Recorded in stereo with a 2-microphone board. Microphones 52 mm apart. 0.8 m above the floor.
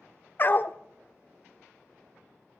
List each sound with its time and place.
0.4 s a dog barking: 40° left (ahead or behind), 0.8 m